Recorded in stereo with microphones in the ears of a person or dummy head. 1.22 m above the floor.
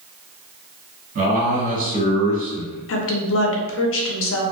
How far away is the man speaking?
About 1.7 m.